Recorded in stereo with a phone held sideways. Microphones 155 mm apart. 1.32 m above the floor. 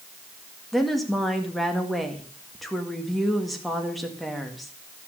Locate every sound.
0.7 s a woman speaking: centre (ahead or behind), 1.8 m